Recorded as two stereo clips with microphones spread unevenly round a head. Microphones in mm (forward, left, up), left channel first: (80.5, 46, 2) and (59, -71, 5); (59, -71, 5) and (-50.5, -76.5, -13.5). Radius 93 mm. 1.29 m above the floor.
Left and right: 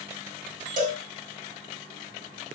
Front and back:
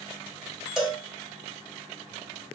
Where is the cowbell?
85° right, 1.6 m.